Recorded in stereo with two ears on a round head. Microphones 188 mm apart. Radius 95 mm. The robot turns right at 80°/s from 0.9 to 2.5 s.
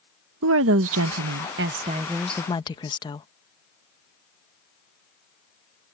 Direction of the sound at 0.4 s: 110° right.